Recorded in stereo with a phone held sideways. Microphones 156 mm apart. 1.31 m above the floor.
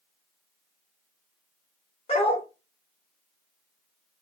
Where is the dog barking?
40° left (ahead or behind), 1.1 m.